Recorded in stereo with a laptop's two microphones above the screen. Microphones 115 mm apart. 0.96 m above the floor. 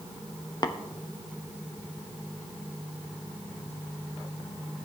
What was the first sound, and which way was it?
Tapping, 35° left (ahead or behind).